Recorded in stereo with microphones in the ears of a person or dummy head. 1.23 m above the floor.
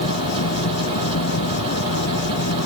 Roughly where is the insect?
Left.